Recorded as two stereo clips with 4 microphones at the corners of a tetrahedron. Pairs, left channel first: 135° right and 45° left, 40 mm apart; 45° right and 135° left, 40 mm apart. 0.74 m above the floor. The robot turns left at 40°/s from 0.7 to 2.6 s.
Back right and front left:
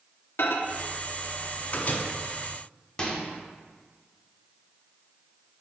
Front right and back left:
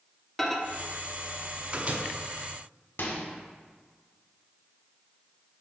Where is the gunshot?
I don't hear a gunshot.